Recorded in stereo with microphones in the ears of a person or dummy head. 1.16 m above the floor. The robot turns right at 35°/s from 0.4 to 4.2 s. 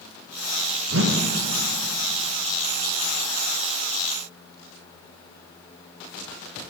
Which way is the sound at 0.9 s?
70° right (ahead or behind).